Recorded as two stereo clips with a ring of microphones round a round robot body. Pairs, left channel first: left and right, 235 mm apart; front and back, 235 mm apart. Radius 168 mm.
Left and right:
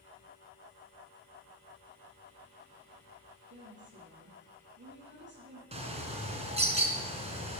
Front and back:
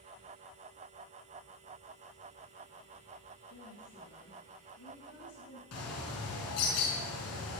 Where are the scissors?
I don't hear scissors.